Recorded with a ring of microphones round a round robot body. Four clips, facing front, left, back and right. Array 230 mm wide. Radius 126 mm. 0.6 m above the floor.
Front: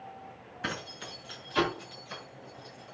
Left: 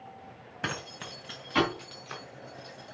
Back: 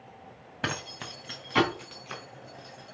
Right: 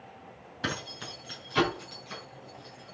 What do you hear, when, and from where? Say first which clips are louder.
0.6 s keys jangling: right 1 dB, back 3 dB; 165° left, 2.5 m; by 3.0 s 145° left, 5.5 m